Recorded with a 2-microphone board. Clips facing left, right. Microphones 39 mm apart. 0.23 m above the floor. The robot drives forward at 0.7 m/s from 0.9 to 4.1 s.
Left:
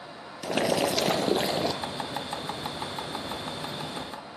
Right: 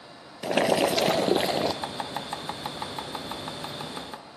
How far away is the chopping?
About 1.2 m.